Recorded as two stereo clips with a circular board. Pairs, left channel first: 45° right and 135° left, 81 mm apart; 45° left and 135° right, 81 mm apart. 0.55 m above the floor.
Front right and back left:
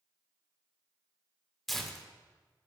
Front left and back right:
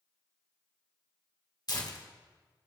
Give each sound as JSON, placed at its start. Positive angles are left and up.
{"t": 1.7, "sound": "tearing paper", "azimuth_deg": 45, "distance_m": 1.6}